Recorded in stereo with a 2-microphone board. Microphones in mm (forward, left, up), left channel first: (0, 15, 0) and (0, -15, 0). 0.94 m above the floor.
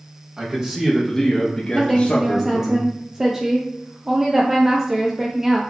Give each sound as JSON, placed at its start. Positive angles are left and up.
{"t": 0.4, "sound": "a man speaking", "side_deg": -25, "distance_m": 1.1}
{"t": 1.7, "sound": "a woman speaking", "side_deg": -15, "distance_m": 0.5}